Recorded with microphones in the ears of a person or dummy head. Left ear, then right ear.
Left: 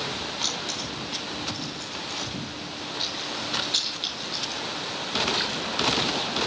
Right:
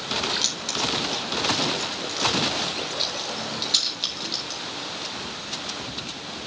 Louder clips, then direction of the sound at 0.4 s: Right 3 dB; 10° right (ahead or behind).